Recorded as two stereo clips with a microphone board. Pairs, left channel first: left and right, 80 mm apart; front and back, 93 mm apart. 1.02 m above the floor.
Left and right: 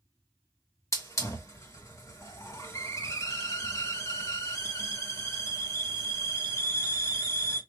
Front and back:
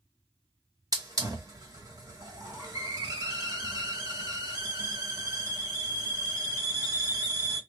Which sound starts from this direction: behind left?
A hiss, at 0.9 s.